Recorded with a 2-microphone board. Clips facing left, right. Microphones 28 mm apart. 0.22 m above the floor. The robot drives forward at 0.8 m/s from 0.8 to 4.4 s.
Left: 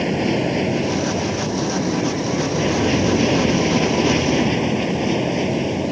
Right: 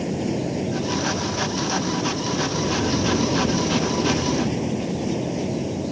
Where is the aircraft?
50° left (ahead or behind); by 5.9 s 45° left (ahead or behind).